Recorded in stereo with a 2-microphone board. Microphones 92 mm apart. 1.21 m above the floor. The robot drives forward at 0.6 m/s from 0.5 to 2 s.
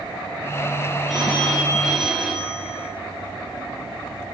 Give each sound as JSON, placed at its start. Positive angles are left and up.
{"t": 1.1, "sound": "a phone ringing", "side_deg": -5, "distance_m": 6.5}